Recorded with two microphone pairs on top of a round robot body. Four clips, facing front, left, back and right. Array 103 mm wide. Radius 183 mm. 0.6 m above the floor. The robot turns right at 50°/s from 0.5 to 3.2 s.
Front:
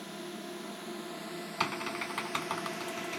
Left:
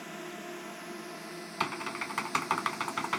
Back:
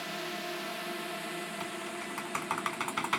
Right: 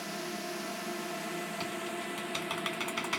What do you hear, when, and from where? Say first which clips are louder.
0.0 s a drone: right 3 dB, back 4 dB; 160° right; by 3.2 s 25° right
1.6 s typing on a keyboard: left 2 dB, front 4 dB; 55° left; by 3.2 s 135° left